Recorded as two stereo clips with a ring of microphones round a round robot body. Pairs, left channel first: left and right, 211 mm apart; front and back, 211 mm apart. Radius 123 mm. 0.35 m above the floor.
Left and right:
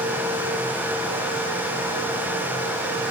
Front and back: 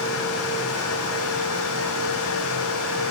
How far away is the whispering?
I don't hear whispering.